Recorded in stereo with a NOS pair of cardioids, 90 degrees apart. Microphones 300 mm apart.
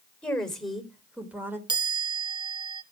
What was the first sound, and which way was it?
A woman speaking, 5° left.